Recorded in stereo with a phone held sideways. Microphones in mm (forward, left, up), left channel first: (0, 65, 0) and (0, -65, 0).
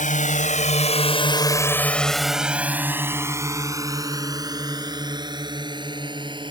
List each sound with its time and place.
0.0 s a drone: 80° left; by 6.5 s 35° right (ahead or behind)